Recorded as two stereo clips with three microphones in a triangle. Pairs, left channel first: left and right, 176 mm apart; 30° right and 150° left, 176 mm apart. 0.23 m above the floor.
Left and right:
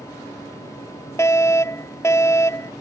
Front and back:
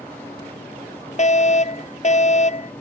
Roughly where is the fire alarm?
Ahead.